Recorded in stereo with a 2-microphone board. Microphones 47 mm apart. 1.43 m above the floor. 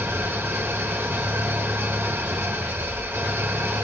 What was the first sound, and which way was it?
An engine running, 50° right (ahead or behind).